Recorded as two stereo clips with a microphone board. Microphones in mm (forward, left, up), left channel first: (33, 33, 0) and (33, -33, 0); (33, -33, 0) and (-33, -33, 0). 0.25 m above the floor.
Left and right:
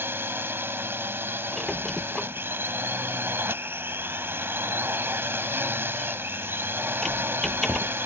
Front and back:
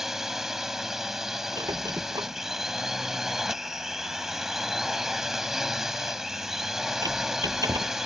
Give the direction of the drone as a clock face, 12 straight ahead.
3 o'clock.